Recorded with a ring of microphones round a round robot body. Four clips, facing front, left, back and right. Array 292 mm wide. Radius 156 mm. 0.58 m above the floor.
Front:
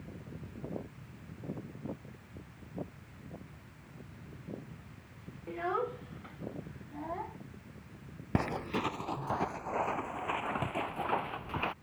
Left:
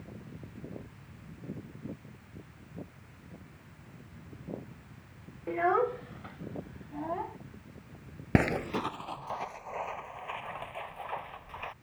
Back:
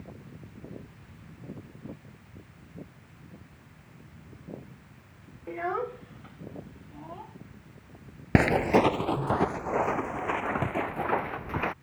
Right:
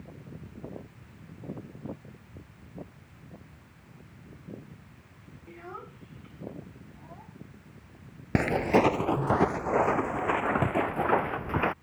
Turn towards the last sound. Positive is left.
turn(degrees=-105)